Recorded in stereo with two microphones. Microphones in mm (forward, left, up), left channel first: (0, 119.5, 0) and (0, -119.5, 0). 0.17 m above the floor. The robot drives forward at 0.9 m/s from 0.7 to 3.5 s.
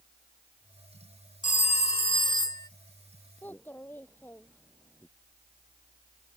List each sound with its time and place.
1.4 s a phone ringing: 35° left (ahead or behind); by 2.7 s 15° left (ahead or behind)
3.4 s a child speaking: 10° left (ahead or behind)